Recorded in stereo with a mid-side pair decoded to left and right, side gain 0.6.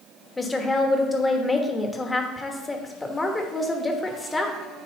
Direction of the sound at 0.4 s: 15° left.